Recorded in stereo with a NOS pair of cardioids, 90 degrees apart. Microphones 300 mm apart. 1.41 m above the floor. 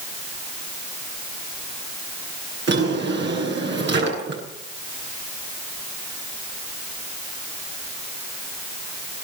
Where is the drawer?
40° right, 10 m.